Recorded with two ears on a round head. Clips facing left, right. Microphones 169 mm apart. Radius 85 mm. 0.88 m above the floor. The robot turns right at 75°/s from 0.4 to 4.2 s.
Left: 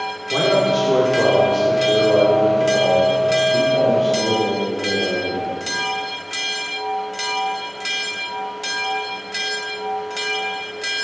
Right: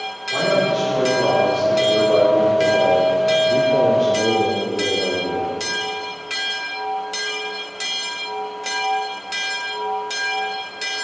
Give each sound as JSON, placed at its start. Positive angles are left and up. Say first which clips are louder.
{"t": 0.3, "sound": "a man speaking", "louder": "left 2 dB", "azimuth_deg": 45, "distance_m": 2.5}